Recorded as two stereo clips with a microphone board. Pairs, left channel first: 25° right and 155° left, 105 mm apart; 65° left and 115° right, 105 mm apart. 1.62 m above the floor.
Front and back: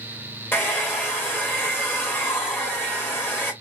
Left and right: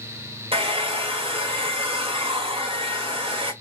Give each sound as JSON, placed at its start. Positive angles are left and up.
{"t": 0.5, "sound": "a hair dryer", "azimuth_deg": -90, "distance_m": 1.8}